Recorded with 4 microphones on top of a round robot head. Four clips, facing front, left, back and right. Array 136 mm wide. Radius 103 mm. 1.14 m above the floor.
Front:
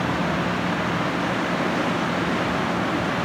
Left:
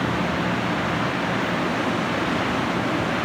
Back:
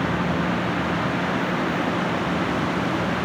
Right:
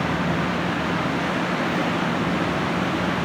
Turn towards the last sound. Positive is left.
No sound to turn to.